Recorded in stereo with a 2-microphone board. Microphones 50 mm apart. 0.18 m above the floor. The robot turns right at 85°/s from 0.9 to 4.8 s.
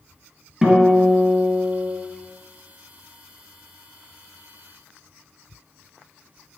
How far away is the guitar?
About 1.8 m.